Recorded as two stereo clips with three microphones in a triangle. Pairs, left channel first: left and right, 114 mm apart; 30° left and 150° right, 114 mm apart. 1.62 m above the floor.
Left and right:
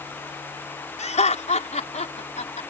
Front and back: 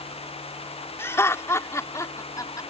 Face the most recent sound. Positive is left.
turn(degrees=90)